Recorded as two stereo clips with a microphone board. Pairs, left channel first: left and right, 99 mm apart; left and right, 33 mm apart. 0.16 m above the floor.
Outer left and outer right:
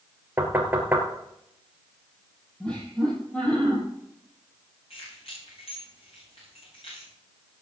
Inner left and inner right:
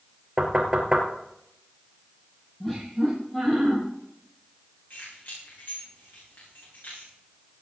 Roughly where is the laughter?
Centre.